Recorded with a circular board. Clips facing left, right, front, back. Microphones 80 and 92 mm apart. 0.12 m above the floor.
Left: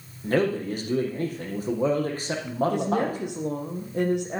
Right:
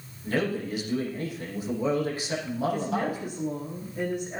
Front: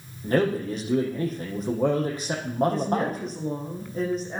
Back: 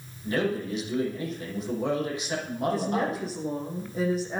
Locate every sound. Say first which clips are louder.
0.2 s a man speaking: left 4 dB, front 4 dB; 45° left, 6 m
2.7 s a woman speaking: left 3 dB, front 2 dB; 95° left, 5 m